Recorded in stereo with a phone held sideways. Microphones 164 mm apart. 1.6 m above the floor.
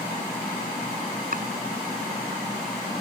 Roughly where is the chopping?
Right.